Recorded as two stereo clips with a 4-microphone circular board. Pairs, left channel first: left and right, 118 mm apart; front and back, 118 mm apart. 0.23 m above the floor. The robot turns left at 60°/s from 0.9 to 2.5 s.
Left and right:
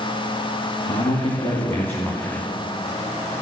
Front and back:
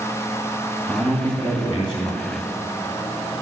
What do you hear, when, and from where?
0.9 s a man speaking: 80° left, 2.5 m; by 2.4 s 10° right, 2.5 m